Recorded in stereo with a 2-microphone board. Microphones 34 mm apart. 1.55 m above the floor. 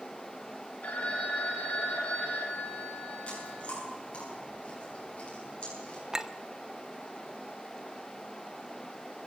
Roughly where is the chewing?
Left.